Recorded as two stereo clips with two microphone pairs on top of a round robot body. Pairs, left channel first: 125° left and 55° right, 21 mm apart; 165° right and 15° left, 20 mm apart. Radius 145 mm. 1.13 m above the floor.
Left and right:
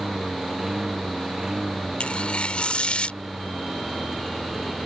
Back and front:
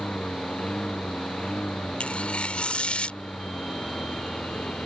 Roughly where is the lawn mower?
Behind right.